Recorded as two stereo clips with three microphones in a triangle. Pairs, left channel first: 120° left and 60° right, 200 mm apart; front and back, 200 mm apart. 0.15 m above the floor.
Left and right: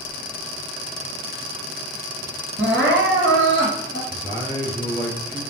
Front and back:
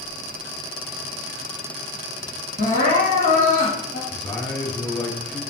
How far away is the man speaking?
About 1.6 m.